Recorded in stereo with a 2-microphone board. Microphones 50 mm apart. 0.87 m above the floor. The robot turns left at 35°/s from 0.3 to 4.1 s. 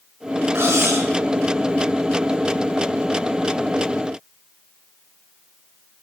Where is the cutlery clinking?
55° right (ahead or behind), 5.5 m; by 1.1 s 75° right (ahead or behind), 5.5 m.